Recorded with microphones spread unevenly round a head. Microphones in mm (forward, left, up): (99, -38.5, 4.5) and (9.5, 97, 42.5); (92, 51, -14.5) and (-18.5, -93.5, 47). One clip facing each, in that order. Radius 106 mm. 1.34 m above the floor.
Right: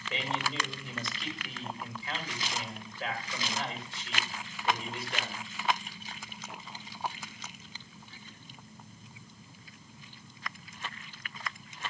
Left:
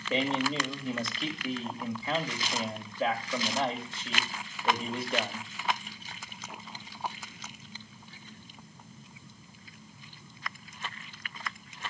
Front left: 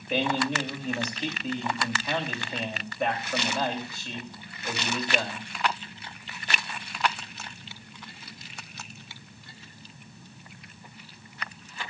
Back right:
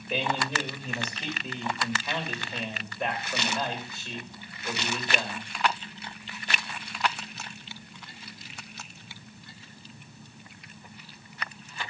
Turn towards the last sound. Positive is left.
turn(degrees=145)